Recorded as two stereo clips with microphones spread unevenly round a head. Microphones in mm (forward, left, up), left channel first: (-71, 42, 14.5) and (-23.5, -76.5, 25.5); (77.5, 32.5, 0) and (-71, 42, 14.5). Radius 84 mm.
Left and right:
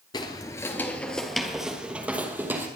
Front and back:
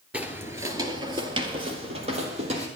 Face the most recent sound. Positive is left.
turn(degrees=-140)